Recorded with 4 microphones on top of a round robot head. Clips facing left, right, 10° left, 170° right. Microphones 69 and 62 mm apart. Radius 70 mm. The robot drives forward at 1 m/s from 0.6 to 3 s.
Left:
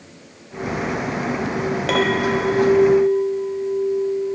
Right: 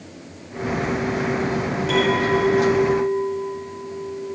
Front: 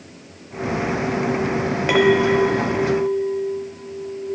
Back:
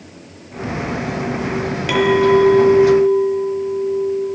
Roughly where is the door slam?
No door slam in this recording.